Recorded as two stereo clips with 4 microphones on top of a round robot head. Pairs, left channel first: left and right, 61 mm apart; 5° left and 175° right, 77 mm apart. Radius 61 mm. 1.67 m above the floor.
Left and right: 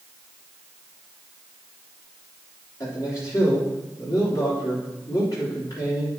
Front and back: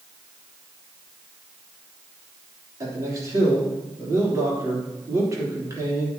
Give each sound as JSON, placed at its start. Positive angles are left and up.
{"t": 2.8, "sound": "a man speaking", "azimuth_deg": 140, "distance_m": 3.0}